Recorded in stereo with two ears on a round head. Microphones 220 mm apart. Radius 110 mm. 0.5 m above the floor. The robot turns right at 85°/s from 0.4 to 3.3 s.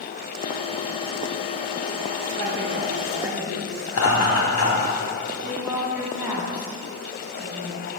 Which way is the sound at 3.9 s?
65° left (ahead or behind).